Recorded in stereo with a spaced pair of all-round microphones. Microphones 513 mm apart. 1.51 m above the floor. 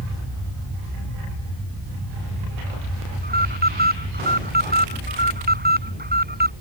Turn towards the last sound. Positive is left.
turn(degrees=-15)  # may be behind; listen again after turning